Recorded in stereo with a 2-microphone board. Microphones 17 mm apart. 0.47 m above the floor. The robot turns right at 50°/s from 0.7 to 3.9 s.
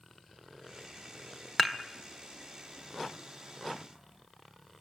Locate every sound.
1.6 s dishes clattering: 10° left (ahead or behind), 0.9 m; by 1.8 s 15° left (ahead or behind), 0.9 m